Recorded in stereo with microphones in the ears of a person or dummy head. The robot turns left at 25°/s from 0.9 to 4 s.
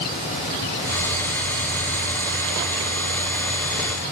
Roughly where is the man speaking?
No man speaking in this recording.